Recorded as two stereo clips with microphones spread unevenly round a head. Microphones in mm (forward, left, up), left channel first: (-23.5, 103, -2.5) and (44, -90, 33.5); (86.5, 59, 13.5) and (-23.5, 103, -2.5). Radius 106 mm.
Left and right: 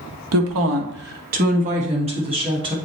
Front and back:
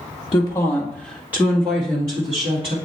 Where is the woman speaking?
85° right, 1.0 m; by 2.8 s 140° right, 2.5 m.